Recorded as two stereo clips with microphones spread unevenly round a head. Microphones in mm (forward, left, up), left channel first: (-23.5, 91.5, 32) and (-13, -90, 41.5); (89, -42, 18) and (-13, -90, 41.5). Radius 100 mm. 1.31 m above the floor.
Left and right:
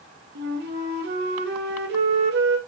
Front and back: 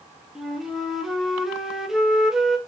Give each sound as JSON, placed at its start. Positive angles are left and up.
{"t": 0.3, "sound": "a flute", "azimuth_deg": -80, "distance_m": 0.7}